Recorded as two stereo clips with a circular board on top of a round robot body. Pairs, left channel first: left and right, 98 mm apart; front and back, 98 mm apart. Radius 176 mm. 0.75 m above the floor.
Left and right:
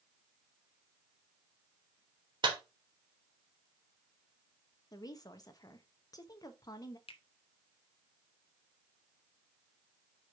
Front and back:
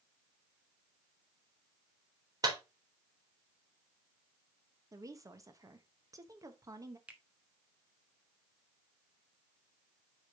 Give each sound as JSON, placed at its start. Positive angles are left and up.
{"t": 2.4, "sound": "a clap", "azimuth_deg": -130, "distance_m": 3.0}
{"t": 4.9, "sound": "a woman speaking", "azimuth_deg": 130, "distance_m": 1.3}
{"t": 7.1, "sound": "a finger snap", "azimuth_deg": 105, "distance_m": 1.2}